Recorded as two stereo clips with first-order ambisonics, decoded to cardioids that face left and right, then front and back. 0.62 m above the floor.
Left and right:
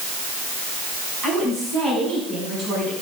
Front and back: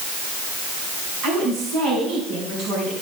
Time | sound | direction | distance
1.2 | a woman speaking | 150° right | 5.5 m